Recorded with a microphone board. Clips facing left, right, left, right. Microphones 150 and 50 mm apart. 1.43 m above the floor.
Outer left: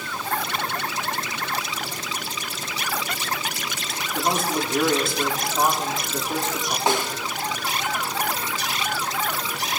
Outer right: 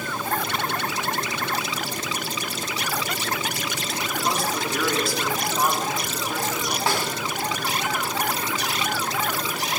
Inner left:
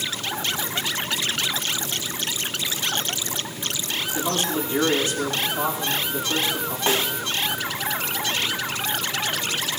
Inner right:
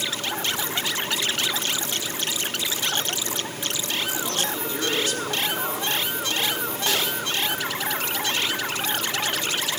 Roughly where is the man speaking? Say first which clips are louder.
Outer left 3 dB, inner left 3 dB; left.